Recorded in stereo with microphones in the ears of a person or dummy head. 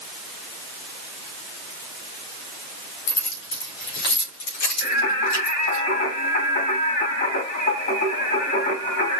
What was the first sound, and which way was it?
Keys jangling, 65° left (ahead or behind).